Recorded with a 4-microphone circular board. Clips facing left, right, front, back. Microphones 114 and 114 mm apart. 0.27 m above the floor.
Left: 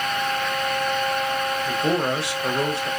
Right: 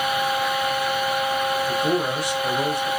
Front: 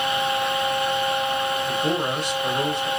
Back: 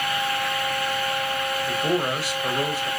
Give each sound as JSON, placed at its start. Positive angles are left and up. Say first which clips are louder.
{"t": 1.6, "sound": "a man speaking", "louder": "even, even", "azimuth_deg": 100, "distance_m": 1.0}